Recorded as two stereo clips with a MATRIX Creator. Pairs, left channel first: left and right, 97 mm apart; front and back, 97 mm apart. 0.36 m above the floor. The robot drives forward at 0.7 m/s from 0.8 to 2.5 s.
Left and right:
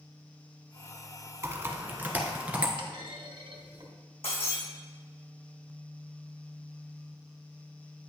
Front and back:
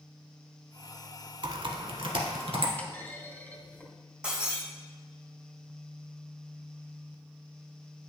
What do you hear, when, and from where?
1.4 s typing on a keyboard: 150° right, 0.7 m; by 2.7 s 165° right, 1.4 m
2.8 s a clunk: 70° right, 2.0 m
4.2 s breaking glass: 100° left, 3.5 m